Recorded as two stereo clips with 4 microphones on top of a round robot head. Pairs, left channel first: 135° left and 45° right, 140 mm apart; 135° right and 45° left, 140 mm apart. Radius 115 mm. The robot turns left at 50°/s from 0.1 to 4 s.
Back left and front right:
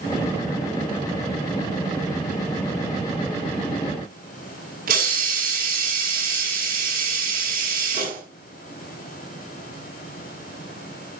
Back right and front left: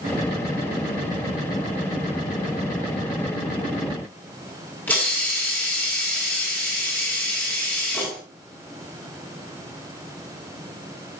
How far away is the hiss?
About 7.5 m.